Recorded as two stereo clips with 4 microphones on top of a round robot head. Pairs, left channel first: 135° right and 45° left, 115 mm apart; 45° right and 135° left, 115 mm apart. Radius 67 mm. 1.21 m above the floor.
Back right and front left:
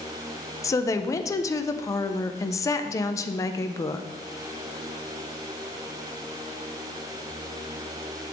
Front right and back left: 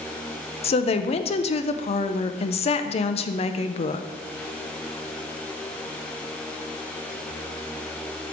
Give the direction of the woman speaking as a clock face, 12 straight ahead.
2 o'clock.